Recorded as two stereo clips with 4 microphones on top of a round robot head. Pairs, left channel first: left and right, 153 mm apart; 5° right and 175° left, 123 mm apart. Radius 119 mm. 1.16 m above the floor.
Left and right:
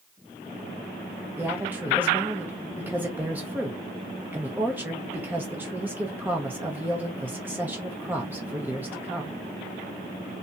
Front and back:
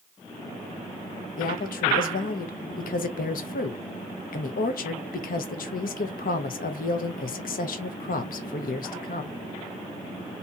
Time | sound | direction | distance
1.4 | a woman speaking | 10° right | 0.8 m